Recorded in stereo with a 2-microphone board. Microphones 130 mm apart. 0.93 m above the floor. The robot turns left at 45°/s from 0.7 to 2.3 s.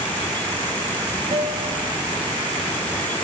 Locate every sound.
1.3 s a guitar: 60° right (ahead or behind), 4 m; by 1.9 s 35° right (ahead or behind), 4 m